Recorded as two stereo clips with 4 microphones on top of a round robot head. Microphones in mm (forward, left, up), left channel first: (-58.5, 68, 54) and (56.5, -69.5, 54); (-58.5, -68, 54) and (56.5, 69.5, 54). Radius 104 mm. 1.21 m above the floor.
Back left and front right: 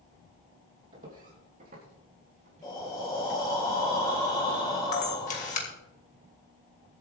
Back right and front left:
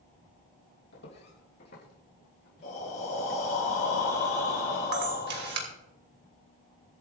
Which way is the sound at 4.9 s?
80° left.